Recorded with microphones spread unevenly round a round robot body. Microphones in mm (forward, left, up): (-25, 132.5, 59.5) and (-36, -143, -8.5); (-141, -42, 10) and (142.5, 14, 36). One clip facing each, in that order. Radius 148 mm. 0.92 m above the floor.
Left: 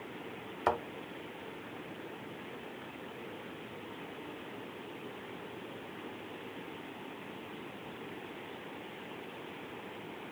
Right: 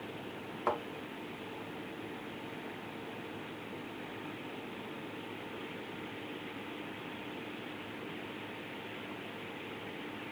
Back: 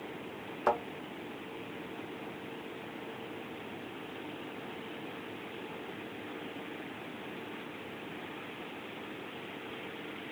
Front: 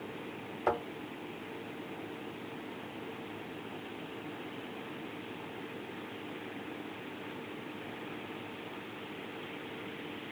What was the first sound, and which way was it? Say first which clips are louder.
A thud: left 2 dB, back 1 dB; 110° left.